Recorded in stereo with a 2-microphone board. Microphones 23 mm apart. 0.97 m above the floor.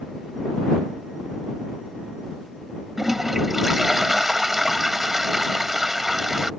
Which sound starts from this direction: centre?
A toilet flushing, at 3.0 s.